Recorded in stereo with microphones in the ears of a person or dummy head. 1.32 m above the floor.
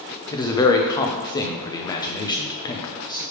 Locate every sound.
0.3 s a man speaking: 20° left (ahead or behind), 0.6 m